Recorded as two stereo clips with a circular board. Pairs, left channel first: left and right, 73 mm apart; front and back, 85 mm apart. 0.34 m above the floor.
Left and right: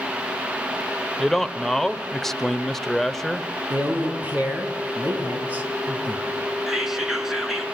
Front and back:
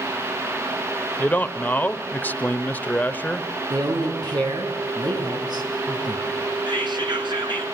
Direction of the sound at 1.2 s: 15° left.